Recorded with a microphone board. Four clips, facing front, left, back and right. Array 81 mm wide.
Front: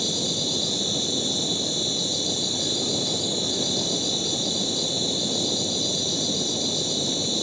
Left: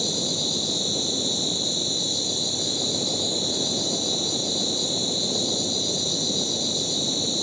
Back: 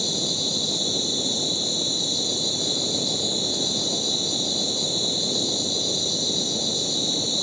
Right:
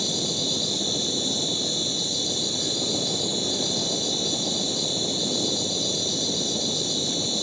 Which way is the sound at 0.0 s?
40° right.